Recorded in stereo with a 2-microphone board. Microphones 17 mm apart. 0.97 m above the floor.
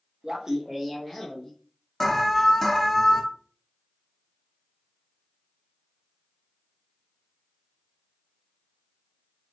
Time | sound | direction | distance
0.2 | laughter | 45° right (ahead or behind) | 0.5 m
2.0 | an alarm | 20° left (ahead or behind) | 0.6 m